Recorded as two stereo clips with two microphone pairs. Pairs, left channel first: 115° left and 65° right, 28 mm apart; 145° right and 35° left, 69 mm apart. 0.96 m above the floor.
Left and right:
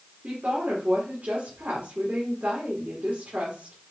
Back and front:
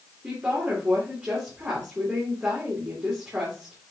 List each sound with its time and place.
0.2 s a woman speaking: 35° right, 3 m